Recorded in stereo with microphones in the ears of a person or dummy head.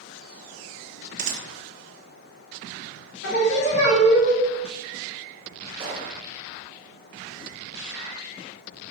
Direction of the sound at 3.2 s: 65° left (ahead or behind).